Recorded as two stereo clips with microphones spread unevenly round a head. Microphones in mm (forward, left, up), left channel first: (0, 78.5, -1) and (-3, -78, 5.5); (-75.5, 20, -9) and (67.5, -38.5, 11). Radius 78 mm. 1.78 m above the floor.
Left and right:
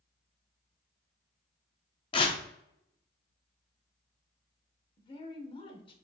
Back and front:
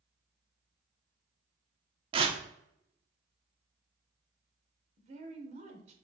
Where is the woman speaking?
30° left, 1.0 m.